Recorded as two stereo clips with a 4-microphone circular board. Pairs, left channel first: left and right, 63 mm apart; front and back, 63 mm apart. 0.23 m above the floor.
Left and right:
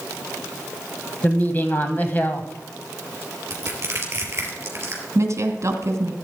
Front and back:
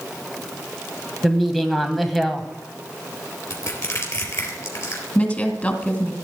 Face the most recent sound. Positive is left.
turn(degrees=-60)